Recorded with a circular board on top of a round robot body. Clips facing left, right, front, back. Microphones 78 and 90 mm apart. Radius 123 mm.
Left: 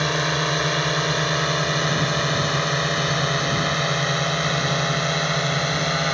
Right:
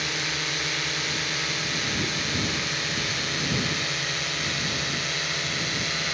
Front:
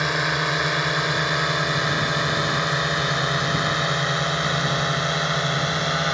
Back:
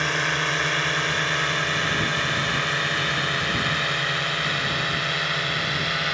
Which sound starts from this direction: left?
A drone, at 0.0 s.